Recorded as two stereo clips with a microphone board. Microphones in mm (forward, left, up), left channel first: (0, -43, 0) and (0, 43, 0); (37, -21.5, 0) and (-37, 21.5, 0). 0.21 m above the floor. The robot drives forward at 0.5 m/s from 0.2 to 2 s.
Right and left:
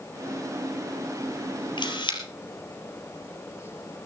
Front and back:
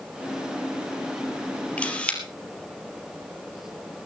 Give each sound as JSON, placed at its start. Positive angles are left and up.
{"t": 1.8, "sound": "a camera shutter", "azimuth_deg": -105, "distance_m": 3.5}